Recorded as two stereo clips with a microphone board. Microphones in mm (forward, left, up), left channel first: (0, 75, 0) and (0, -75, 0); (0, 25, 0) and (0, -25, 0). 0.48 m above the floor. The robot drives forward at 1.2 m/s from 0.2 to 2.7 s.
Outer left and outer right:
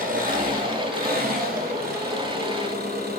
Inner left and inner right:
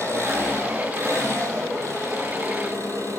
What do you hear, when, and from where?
0.0 s an engine running: 65° right (ahead or behind), 8 m; by 3.2 s 85° right, 7.5 m